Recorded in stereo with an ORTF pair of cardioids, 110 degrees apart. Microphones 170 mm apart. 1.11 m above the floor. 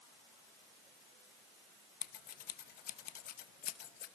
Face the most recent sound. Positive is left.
turn(degrees=60)